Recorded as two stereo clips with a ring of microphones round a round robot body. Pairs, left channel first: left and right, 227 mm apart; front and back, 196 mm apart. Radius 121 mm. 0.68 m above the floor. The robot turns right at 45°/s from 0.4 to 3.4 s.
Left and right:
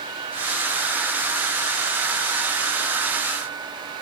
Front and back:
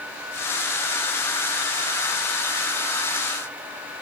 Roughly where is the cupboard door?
No cupboard door in this recording.